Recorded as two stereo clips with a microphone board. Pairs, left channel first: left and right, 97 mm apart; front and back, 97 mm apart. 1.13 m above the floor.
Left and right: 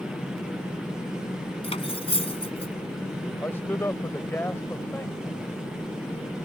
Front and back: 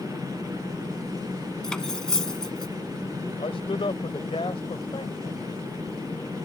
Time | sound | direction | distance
1.6 | cutlery clinking | 85° left | ?
3.4 | a man speaking | 25° left | ?